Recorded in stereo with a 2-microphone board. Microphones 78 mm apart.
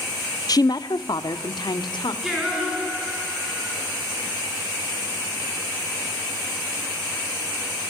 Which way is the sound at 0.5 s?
55° left (ahead or behind).